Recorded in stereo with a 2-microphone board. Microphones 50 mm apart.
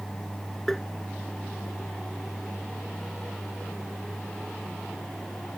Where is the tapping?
5° left (ahead or behind).